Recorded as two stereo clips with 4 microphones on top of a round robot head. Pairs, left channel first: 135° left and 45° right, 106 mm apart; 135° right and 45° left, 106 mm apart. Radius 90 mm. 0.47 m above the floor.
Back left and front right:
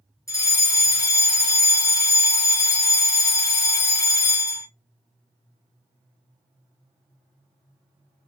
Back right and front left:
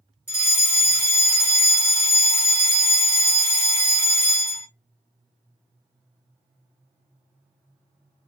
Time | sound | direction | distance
0.3 | a fire alarm | 100° left | 2.0 m